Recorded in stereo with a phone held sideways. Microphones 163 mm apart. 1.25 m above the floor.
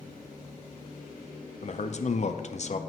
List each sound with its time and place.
1.6 s a man speaking: 50° left (ahead or behind), 0.6 m